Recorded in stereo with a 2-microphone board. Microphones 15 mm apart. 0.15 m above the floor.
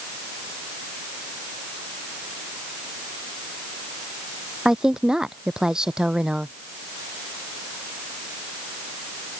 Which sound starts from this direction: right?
A woman speaking, at 4.7 s.